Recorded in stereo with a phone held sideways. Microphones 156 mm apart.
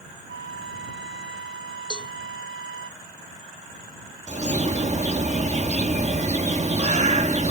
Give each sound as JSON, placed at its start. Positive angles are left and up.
{"t": 0.3, "sound": "a flute", "side_deg": 80}
{"t": 1.9, "sound": "a cowbell", "side_deg": 30}
{"t": 4.3, "sound": "a bird", "side_deg": -45}